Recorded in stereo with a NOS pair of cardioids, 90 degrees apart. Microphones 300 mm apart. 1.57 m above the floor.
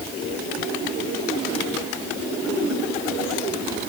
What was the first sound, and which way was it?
Only background noise.